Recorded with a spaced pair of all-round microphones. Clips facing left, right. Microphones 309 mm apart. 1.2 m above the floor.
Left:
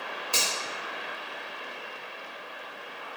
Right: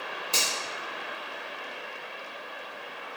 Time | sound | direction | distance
0.3 | a finger snap | 25° right (ahead or behind) | 1.1 m